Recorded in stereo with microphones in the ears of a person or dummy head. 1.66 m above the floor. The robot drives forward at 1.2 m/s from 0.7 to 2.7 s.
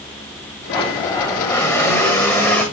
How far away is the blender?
About 2.0 m.